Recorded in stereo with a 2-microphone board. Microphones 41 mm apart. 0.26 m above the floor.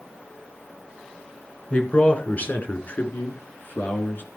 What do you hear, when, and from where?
1.7 s a man speaking: 30° left (ahead or behind), 2.5 m; by 4.2 s 55° left (ahead or behind), 3 m